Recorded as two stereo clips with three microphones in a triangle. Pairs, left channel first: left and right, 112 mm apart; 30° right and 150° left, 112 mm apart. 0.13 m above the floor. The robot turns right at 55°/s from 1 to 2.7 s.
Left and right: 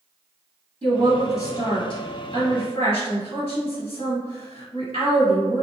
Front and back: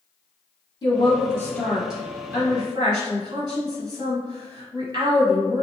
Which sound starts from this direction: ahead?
A woman speaking, at 0.8 s.